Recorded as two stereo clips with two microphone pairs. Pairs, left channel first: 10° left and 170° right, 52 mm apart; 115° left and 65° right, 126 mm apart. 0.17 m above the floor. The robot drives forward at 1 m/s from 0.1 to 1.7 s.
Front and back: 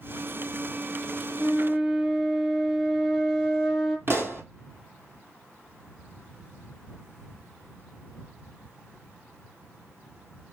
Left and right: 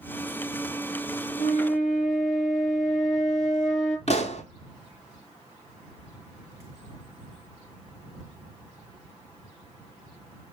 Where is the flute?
85° left, 0.9 m; by 4.0 s 105° left, 0.9 m.